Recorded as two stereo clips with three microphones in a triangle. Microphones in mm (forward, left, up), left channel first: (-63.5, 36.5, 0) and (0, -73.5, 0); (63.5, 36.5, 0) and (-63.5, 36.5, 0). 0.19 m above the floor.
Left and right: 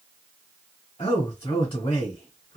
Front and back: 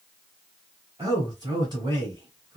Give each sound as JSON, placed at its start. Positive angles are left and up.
{"t": 1.0, "sound": "a man speaking", "azimuth_deg": 140, "distance_m": 1.5}